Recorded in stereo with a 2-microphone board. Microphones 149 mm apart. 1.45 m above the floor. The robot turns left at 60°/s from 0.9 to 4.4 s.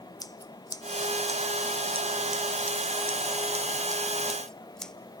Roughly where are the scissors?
Left.